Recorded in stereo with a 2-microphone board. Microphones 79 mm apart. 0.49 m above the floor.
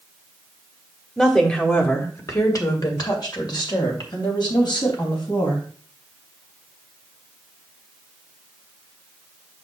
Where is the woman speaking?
5° left (ahead or behind), 1.2 m; by 5.6 s 75° left (ahead or behind), 4 m.